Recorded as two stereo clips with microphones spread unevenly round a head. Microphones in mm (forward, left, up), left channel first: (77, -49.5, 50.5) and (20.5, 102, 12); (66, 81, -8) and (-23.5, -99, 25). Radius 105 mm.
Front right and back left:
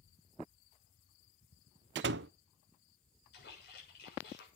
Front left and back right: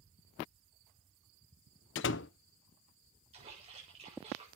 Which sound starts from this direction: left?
A door slam, at 1.9 s.